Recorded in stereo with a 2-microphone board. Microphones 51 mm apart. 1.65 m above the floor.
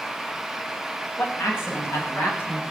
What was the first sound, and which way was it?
A man speaking, 55° left (ahead or behind).